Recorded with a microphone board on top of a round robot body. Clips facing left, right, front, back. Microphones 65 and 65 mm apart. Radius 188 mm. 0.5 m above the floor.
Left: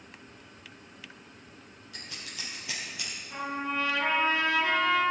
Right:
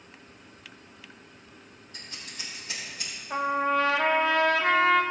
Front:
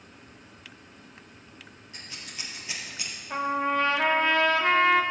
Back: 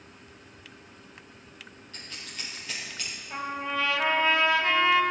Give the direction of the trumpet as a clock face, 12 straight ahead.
2 o'clock.